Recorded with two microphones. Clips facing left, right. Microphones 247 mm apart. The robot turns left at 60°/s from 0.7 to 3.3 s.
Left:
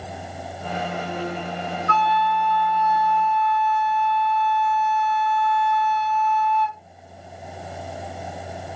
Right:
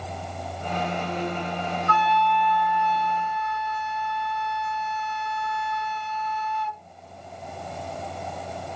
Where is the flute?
35° left, 1.2 m; by 6.8 s 50° right, 1.2 m.